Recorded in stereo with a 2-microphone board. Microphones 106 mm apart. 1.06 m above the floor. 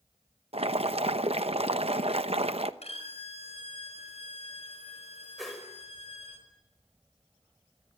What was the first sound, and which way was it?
Boiling, 70° right (ahead or behind).